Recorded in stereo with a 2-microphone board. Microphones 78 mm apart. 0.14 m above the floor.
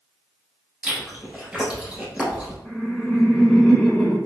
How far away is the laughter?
About 1.1 m.